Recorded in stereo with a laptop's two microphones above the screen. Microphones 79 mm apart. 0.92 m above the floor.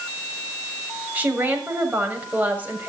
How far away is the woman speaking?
About 6.5 m.